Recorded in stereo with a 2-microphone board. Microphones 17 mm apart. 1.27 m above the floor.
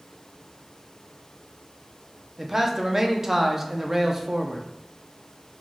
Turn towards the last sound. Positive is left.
turn(degrees=-20)  # may be behind; listen again after turning